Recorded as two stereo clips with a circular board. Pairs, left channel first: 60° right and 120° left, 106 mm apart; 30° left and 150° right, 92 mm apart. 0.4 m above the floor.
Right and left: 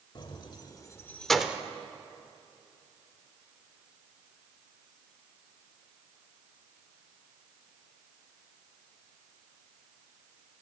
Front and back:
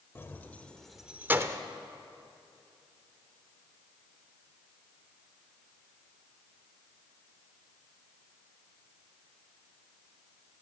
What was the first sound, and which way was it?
Keys jangling, 30° right.